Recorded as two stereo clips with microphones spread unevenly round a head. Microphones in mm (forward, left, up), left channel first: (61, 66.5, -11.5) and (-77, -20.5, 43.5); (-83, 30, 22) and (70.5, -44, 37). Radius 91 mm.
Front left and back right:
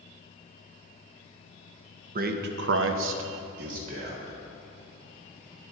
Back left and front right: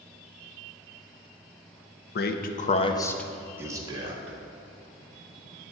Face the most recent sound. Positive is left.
turn(degrees=-85)